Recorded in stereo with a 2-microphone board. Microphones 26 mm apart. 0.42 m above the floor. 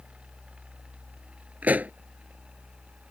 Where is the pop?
85° right.